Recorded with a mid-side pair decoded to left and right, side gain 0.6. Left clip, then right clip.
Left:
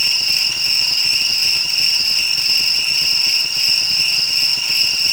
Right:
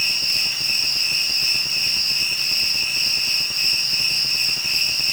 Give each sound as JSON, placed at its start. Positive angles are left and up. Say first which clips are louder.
{"t": 0.0, "sound": "an insect", "louder": "left 4 dB", "azimuth_deg": 30, "distance_m": 4.5}